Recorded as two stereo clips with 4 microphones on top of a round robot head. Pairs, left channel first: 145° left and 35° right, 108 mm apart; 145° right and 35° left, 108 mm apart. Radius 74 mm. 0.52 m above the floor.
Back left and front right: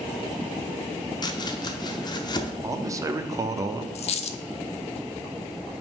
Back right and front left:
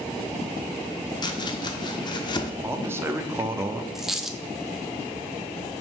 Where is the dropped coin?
125° left, 0.5 m.